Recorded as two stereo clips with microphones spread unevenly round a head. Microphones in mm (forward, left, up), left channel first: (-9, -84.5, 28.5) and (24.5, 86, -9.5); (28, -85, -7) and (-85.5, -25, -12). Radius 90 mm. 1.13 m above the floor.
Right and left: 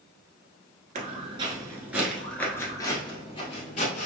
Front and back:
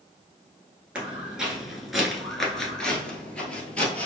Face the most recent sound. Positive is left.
turn(degrees=-105)